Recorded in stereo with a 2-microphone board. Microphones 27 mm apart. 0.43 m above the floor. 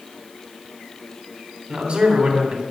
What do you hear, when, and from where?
1.7 s a man speaking: 50° right (ahead or behind), 3 m